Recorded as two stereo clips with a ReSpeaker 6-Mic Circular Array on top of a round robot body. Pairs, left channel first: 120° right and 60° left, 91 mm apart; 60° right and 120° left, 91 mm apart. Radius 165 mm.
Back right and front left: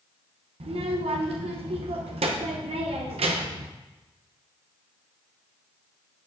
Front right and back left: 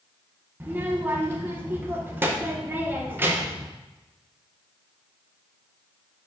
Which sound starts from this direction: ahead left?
A child speaking, at 0.6 s.